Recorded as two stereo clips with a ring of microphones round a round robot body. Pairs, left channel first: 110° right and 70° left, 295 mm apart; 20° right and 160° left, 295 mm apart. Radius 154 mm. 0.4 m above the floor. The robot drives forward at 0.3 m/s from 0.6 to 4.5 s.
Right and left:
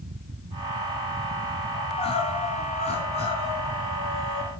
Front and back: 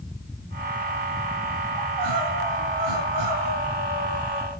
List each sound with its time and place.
1.8 s crying: 175° left, 1.8 m